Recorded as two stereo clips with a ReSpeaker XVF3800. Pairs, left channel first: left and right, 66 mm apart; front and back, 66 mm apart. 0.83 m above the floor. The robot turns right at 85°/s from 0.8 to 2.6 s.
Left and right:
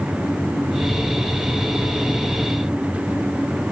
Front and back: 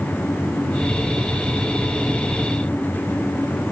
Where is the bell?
I don't hear a bell.